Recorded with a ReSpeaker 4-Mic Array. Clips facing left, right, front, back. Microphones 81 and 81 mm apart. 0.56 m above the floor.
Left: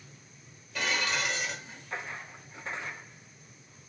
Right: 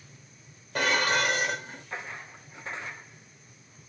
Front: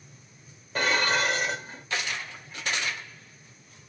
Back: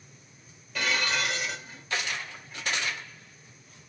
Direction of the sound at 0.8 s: 50° right.